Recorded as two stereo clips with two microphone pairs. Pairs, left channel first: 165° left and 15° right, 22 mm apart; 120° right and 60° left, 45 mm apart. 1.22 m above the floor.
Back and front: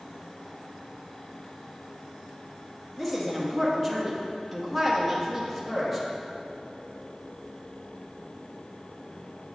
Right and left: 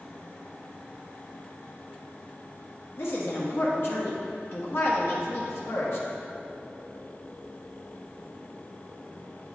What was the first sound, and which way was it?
A woman speaking, 105° right.